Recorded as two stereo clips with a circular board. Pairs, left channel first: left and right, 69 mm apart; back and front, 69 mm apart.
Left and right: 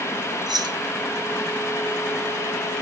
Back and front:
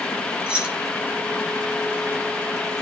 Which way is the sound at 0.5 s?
75° right.